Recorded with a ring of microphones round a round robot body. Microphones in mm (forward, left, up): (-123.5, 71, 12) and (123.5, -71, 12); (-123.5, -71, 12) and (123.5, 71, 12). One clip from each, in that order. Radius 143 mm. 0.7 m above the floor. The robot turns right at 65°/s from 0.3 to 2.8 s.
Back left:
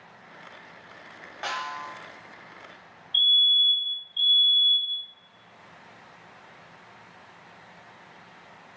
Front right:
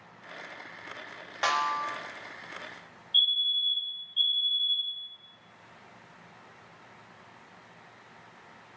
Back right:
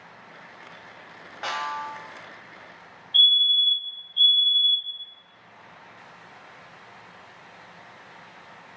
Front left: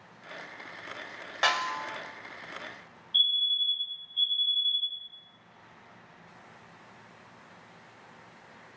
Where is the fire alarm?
110° right, 1.6 m.